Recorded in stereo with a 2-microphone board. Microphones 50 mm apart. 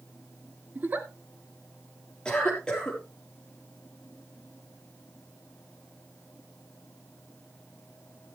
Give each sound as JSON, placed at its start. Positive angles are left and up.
{"t": 0.8, "sound": "a giggle", "side_deg": -35, "distance_m": 1.1}
{"t": 2.2, "sound": "a cough", "side_deg": 15, "distance_m": 5.0}